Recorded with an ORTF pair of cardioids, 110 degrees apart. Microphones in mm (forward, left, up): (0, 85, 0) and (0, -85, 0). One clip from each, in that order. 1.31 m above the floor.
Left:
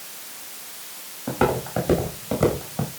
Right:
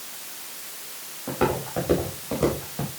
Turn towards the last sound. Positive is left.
turn(degrees=30)